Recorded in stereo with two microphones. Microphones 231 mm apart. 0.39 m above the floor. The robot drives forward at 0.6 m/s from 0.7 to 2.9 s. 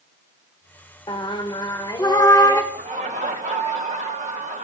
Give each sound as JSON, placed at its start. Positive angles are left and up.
{"t": 1.1, "sound": "singing", "side_deg": 20, "distance_m": 0.9}
{"t": 2.7, "sound": "laughter", "side_deg": -30, "distance_m": 1.1}